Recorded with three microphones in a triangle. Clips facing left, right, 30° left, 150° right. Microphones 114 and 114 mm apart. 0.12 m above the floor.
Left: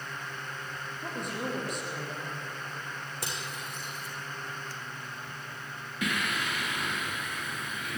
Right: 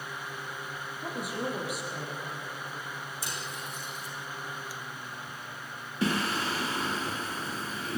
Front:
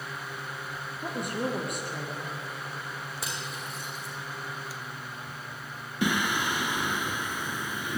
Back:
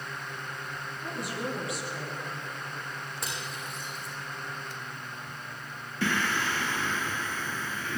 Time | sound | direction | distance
1.0 | a woman speaking | 5° right | 4 m
3.2 | cutlery clinking | 120° left | 5.5 m
6.0 | singing | 45° right | 0.9 m